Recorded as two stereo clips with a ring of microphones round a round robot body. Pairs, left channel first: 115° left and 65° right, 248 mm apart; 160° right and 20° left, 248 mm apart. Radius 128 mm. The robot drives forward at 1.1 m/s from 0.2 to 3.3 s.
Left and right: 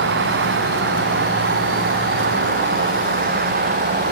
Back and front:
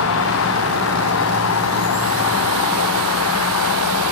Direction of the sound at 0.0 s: 115° right.